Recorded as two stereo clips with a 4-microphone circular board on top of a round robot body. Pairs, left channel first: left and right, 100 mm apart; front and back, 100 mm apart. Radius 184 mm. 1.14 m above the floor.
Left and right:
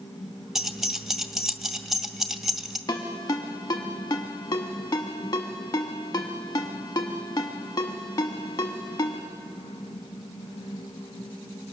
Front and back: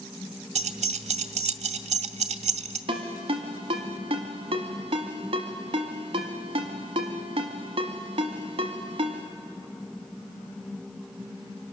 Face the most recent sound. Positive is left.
turn(degrees=150)